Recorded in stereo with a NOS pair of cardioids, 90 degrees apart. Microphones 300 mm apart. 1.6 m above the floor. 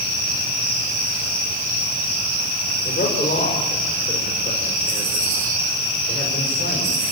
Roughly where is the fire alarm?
I don't hear a fire alarm.